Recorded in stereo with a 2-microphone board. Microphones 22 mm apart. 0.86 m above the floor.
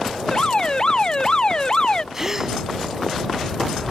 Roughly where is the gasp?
Centre.